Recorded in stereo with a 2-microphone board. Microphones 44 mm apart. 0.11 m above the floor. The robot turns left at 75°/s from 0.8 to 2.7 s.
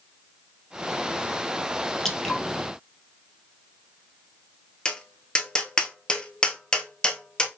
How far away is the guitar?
I don't hear a guitar.